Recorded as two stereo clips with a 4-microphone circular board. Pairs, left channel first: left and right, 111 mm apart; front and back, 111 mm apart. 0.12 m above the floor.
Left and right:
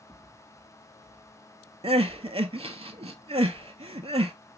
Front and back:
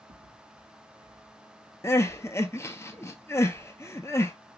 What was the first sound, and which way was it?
Footsteps, 160° left.